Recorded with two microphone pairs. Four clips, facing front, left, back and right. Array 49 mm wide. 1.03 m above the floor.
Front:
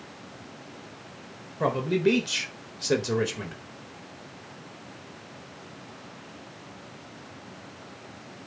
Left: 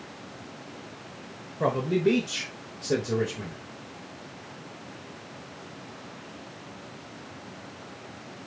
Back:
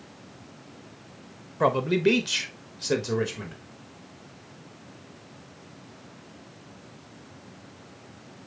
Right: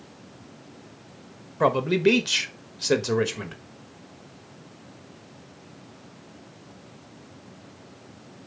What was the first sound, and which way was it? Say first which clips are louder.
A man speaking: right 4 dB, back 2 dB; 120° right.